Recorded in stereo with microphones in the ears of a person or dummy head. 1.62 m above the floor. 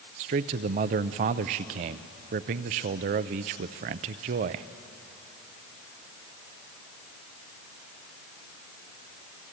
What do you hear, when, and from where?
0.2 s a man speaking: 40° right (ahead or behind), 0.6 m